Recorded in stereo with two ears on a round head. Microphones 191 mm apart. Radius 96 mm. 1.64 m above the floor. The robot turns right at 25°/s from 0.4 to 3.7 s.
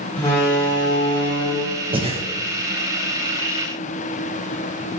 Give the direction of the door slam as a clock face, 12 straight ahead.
11 o'clock.